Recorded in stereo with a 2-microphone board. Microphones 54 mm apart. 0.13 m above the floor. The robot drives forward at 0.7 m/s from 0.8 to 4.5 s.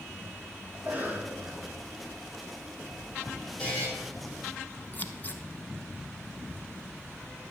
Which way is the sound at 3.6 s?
25° left (ahead or behind).